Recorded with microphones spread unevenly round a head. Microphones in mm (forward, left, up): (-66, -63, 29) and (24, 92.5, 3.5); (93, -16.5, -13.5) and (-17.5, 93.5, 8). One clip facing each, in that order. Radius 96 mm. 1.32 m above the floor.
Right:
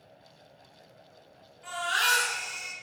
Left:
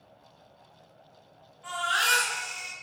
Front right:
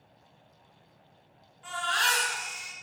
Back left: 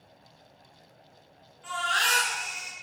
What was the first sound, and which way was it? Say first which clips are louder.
A baby crying: even, even; 75° right.